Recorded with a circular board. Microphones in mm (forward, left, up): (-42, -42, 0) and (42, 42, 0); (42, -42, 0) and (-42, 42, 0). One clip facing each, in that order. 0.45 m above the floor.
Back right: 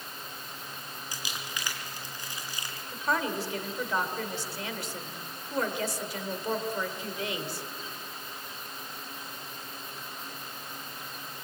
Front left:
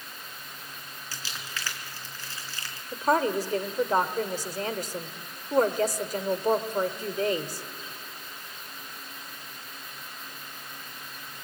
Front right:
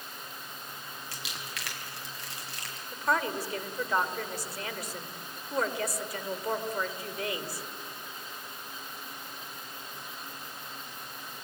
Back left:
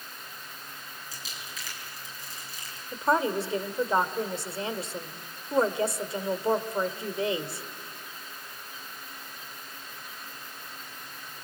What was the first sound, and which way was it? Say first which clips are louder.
Crumpling: even, front right 2 dB; 60° right.